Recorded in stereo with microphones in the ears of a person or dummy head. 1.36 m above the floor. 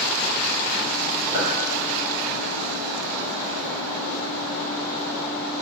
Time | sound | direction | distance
1.3 | a clink | 15° right (ahead or behind) | 1.7 m